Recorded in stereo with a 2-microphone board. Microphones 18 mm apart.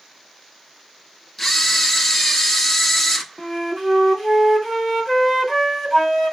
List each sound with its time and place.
1.4 s a camera shutter: 20° left (ahead or behind), 1.2 m
3.4 s a flute: 5° left (ahead or behind), 1.5 m